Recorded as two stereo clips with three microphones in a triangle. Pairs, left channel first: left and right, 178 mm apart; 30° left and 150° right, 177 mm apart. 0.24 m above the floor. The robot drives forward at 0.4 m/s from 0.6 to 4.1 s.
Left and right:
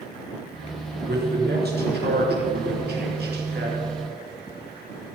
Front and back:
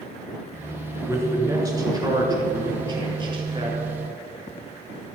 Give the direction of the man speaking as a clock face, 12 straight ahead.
3 o'clock.